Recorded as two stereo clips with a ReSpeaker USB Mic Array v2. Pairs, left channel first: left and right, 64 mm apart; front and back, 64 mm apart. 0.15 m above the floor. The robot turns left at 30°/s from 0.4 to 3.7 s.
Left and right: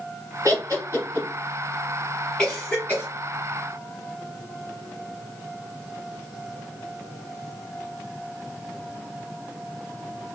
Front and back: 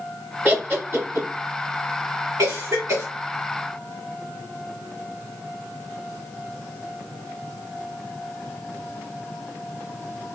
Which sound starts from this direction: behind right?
Laughter, at 0.5 s.